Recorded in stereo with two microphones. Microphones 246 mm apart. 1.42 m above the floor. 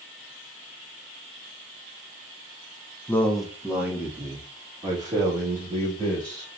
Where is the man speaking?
10° left (ahead or behind), 0.8 m; by 6.5 s 20° right (ahead or behind), 3 m.